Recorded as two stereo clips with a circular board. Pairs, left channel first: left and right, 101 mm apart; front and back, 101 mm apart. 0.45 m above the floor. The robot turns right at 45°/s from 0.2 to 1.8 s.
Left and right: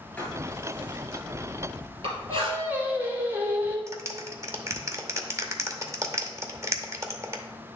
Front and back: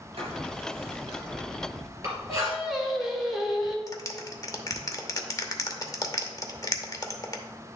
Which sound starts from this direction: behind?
Writing, at 0.2 s.